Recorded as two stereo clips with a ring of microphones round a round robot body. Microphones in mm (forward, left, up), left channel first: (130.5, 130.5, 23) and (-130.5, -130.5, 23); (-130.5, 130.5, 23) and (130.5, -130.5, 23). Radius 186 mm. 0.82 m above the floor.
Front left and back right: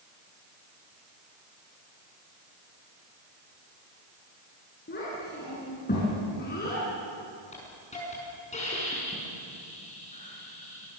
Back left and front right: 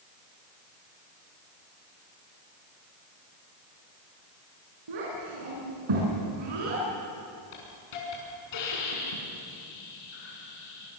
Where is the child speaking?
20° right, 5.5 m.